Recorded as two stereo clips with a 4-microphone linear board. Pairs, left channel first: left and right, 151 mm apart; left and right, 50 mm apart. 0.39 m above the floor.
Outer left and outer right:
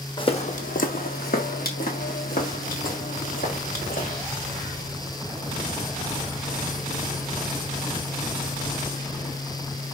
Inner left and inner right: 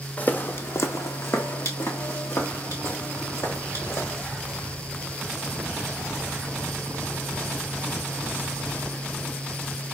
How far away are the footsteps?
About 0.7 m.